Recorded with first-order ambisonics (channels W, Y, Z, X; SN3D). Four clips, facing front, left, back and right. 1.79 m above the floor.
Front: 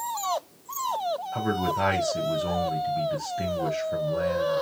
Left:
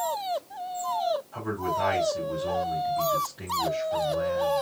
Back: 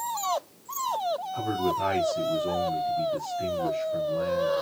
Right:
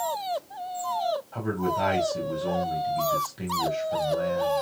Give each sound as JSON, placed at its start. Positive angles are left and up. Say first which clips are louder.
{"t": 1.3, "sound": "a man speaking", "louder": "right 2 dB, front 2 dB", "azimuth_deg": -20, "distance_m": 2.0}